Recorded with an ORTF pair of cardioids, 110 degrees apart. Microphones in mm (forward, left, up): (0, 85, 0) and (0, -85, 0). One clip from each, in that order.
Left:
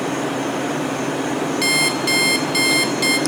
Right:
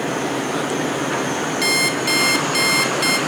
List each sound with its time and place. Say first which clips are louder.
1.6 s an alarm clock: even; 5° left, 1.5 m